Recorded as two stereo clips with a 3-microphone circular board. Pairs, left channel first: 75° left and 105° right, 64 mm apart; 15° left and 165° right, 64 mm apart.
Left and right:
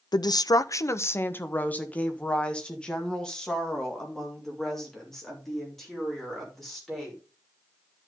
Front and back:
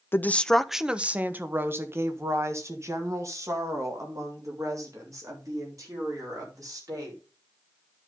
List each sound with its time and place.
0.1 s a woman speaking: 75° left, 0.5 m; by 7.2 s 160° left, 4.5 m